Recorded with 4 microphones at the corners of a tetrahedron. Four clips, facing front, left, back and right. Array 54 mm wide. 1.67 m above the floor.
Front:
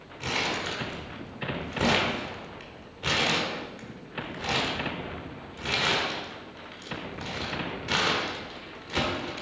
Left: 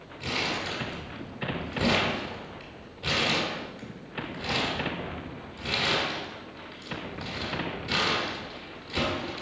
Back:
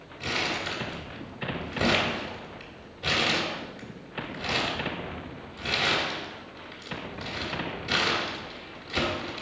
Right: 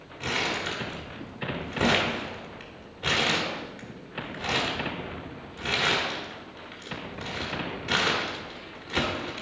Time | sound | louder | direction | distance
0.2 | crumpling | right 2 dB, even | 55° right | 1.5 m